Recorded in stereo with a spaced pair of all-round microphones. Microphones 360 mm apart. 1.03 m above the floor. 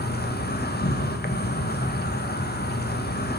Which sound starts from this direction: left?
An insect, at 0.0 s.